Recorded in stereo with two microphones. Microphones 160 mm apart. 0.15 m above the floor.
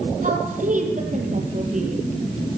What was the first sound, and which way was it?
A woman speaking, 55° right (ahead or behind).